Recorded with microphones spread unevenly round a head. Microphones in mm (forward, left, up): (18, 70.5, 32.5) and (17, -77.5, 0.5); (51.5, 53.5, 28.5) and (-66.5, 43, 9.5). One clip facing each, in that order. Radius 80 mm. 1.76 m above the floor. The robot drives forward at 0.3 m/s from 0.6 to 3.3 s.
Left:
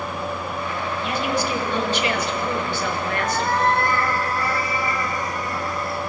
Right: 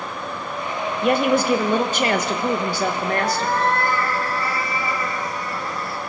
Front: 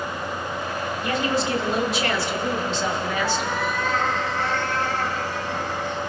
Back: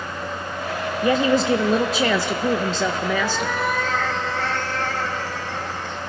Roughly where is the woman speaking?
Behind right.